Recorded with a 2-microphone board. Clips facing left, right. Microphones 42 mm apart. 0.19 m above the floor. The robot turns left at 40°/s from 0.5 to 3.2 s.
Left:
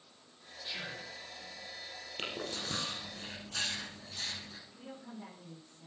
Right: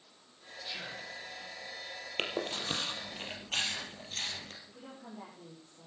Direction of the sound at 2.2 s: 50° right (ahead or behind).